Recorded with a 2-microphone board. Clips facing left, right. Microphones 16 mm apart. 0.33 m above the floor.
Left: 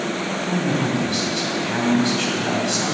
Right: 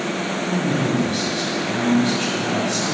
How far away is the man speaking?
About 2.5 m.